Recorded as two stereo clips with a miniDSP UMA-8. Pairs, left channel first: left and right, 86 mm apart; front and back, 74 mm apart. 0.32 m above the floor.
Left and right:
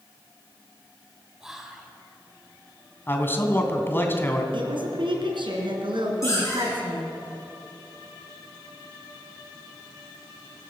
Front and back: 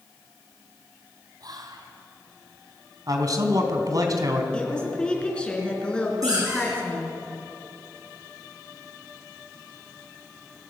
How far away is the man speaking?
About 3 m.